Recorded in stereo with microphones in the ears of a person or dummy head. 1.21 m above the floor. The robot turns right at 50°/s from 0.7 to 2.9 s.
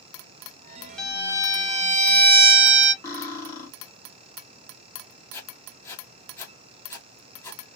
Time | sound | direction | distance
1.0 | a violin | straight behind | 0.8 m
3.0 | cutlery clinking | 15° left (ahead or behind) | 1.3 m
5.3 | writing | 15° left (ahead or behind) | 1.5 m